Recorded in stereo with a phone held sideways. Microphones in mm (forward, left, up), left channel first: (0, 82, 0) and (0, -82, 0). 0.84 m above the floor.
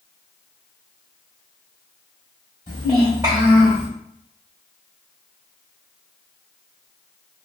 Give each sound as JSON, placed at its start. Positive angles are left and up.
{"t": 2.7, "sound": "a child speaking", "side_deg": -25, "distance_m": 2.0}